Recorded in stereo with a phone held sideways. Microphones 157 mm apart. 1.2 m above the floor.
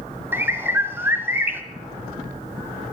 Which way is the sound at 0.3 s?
15° right (ahead or behind).